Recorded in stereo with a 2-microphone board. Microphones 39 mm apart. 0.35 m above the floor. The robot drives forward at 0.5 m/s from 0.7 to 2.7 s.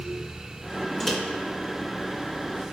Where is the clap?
No clap in this recording.